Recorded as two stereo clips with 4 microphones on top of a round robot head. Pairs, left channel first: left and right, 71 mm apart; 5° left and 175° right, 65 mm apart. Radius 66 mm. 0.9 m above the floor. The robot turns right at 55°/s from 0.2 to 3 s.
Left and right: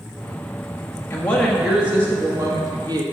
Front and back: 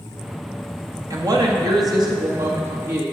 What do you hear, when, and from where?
1.1 s a woman speaking: 155° left, 1.3 m; by 3.0 s 100° right, 1.3 m